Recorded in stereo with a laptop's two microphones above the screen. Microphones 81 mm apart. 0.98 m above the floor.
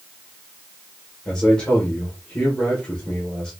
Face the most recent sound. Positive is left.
turn(degrees=10)  # may be behind; listen again after turning